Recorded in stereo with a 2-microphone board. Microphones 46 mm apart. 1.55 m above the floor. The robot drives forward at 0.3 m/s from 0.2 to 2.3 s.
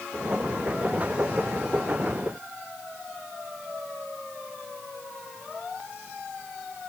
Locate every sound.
Only background noise.